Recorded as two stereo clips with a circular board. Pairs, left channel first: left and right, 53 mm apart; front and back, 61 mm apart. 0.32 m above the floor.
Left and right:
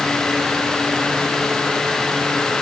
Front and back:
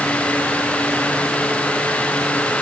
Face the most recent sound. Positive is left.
No sound to turn to.